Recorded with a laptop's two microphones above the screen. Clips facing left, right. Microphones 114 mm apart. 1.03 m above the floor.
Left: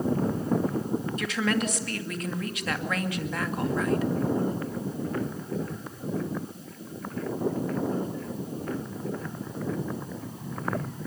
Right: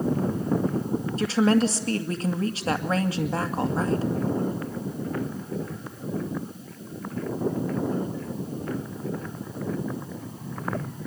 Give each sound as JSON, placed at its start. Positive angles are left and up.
{"t": 1.2, "sound": "a woman speaking", "side_deg": -30, "distance_m": 2.0}